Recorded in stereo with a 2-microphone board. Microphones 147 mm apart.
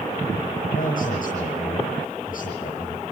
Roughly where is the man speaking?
Left.